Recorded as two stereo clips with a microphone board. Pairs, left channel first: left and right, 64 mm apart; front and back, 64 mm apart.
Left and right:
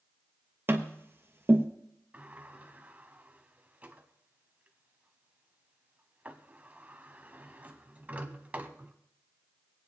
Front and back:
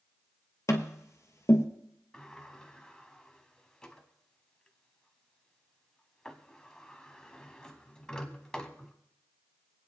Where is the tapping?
35° right, 1.4 m.